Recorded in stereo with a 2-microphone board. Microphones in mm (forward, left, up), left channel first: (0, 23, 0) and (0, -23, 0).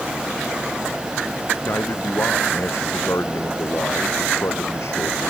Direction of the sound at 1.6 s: 65° left (ahead or behind).